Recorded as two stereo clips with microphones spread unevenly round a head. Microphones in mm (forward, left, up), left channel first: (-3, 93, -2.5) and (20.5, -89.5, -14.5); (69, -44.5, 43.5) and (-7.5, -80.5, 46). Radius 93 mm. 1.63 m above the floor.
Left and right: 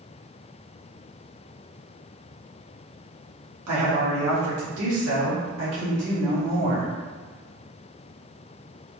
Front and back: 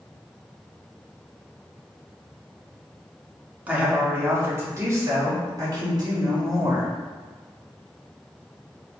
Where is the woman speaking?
80° right, 1.6 m; by 6.9 s 125° right, 2.5 m.